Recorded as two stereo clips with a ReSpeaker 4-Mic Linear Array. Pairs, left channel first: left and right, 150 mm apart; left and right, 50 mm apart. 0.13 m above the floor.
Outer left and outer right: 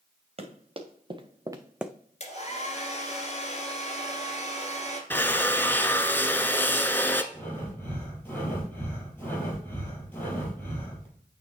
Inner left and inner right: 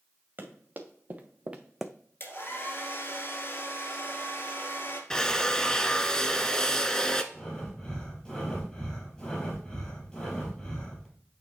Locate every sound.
0.4 s running footsteps: 45° right (ahead or behind), 2.0 m; by 1.9 s 5° left (ahead or behind), 0.5 m
2.2 s a hair dryer: 50° left (ahead or behind), 2.0 m
5.1 s a drill: 15° left (ahead or behind), 0.6 m
7.3 s breathing: 15° left (ahead or behind), 3.5 m